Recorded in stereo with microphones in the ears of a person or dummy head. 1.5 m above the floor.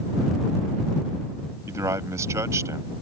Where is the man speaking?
20° right (ahead or behind).